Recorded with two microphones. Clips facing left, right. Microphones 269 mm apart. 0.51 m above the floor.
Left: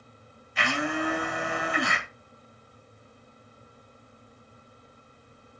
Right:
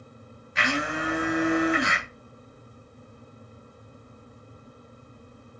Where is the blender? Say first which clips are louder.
Even; 85° right, 2 m.